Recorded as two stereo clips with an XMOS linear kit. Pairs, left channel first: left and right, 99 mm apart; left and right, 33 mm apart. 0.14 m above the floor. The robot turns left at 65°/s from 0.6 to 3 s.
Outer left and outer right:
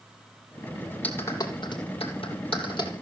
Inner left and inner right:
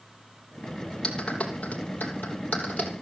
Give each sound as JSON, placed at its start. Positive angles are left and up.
{"t": 1.0, "sound": "a clap", "side_deg": 15, "distance_m": 3.0}